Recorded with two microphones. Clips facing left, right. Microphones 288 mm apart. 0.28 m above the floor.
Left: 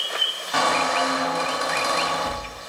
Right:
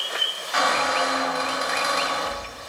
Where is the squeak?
55° left (ahead or behind), 1.5 m.